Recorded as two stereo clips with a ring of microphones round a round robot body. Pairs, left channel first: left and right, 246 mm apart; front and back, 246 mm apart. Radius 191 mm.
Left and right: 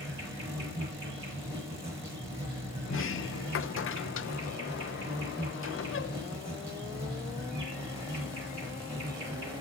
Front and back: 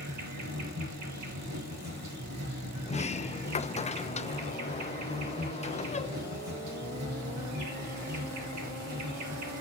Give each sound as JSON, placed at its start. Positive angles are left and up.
{"t": 0.0, "sound": "an insect", "azimuth_deg": -160, "distance_m": 5.5}
{"t": 2.9, "sound": "a sliding door", "azimuth_deg": 65, "distance_m": 0.6}